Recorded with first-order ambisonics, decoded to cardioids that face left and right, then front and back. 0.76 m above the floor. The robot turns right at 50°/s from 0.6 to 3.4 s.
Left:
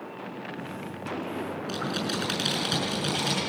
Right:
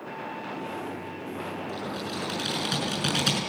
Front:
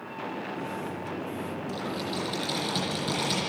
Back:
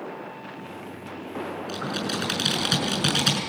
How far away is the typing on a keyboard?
About 6.5 m.